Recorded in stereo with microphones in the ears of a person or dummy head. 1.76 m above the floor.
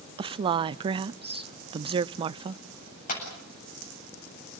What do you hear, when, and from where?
0.2 s a woman speaking: 30° right (ahead or behind), 0.5 m
3.1 s a clap: 45° left (ahead or behind), 8.5 m